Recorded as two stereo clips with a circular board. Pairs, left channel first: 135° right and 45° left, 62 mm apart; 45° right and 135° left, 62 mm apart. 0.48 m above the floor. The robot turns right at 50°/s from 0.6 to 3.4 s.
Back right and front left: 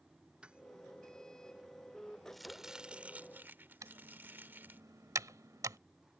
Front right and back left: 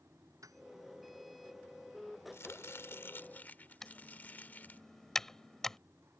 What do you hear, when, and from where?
0.4 s a piano: 115° left; by 0.6 s 120° left
2.3 s chopping: 50° right; by 4.8 s 5° left
3.8 s typing on a keyboard: 35° left